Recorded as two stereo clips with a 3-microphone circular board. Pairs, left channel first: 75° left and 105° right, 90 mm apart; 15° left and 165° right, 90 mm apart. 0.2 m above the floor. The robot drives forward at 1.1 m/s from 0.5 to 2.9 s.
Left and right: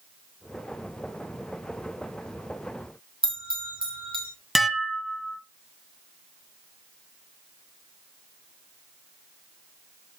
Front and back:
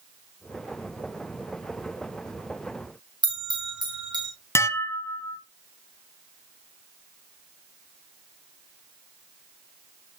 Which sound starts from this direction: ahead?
Dishes clattering, at 4.5 s.